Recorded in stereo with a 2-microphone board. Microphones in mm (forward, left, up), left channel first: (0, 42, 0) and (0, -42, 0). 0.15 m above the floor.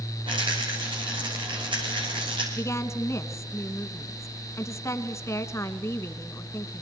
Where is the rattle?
80° right, 9.5 m.